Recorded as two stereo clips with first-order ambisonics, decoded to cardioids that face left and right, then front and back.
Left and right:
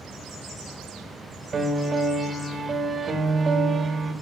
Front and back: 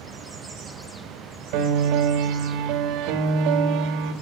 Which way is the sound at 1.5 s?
160° right.